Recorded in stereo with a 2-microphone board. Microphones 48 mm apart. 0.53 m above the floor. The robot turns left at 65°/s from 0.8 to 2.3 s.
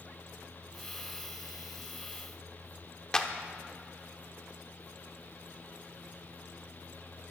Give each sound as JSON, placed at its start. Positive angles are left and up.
{"t": 3.1, "sound": "a clap", "side_deg": 15, "distance_m": 0.9}